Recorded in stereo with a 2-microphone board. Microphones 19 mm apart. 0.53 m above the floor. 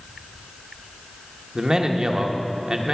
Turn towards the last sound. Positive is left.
turn(degrees=-40)  # may be behind; listen again after turning